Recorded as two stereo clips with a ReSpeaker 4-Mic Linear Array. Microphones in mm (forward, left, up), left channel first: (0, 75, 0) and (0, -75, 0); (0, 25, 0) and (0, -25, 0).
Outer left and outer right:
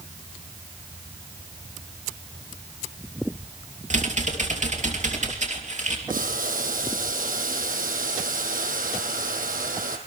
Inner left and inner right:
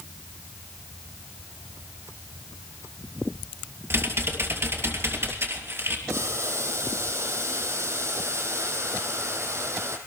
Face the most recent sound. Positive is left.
turn(degrees=-70)  # may be behind; listen again after turning